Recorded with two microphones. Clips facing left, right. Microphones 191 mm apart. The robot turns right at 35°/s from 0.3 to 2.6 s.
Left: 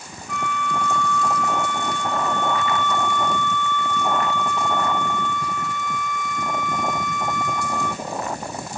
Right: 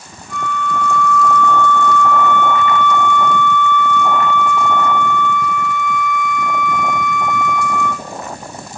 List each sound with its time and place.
0.3 s a flute: 35° right, 0.8 m; by 8.1 s 45° left, 0.8 m